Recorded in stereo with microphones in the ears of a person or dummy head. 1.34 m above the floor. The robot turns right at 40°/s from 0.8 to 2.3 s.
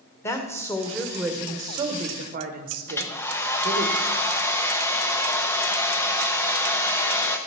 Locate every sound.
0.2 s a woman speaking: 165° left, 1.4 m; by 3.9 s 135° right, 1.4 m
2.9 s a hair dryer: 15° left (ahead or behind), 0.8 m